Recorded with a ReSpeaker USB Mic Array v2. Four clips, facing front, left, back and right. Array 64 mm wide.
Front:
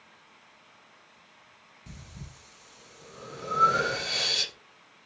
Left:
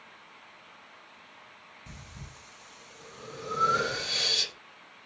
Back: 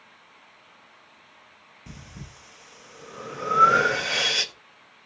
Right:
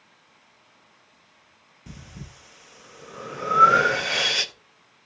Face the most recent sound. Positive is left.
turn(degrees=-130)